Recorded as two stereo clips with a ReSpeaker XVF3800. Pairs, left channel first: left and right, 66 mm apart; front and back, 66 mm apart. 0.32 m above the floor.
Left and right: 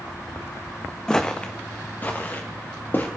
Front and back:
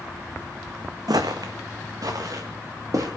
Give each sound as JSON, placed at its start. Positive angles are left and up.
{"t": 1.1, "sound": "footsteps", "azimuth_deg": 170, "distance_m": 0.9}